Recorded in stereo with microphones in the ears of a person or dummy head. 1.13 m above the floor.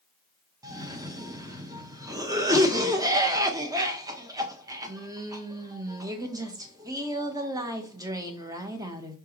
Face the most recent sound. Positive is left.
turn(degrees=-20)  # may be behind; listen again after turning